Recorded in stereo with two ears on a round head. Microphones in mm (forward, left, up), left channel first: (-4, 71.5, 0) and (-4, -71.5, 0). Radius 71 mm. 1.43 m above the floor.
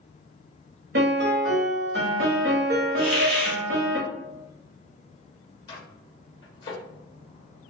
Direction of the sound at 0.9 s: 75° right (ahead or behind).